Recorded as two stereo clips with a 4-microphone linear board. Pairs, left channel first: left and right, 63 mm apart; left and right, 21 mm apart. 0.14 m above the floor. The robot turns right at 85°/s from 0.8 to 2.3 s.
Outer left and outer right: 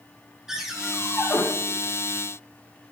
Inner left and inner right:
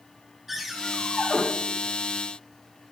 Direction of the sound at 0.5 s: 5° right.